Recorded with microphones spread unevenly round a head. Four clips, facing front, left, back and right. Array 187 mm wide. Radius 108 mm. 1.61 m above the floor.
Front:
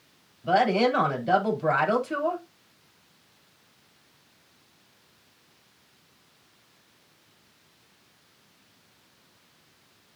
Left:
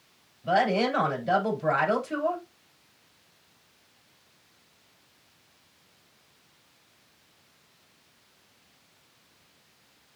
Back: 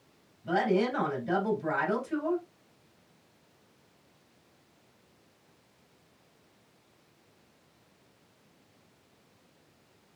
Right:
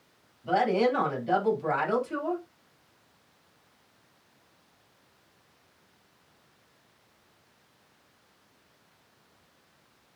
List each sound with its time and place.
0.4 s a woman speaking: 25° left, 3.5 m